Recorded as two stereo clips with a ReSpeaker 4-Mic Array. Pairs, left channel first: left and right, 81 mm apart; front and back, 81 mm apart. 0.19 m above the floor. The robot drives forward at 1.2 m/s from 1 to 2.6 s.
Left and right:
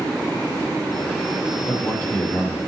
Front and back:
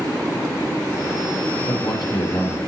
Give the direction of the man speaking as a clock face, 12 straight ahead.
11 o'clock.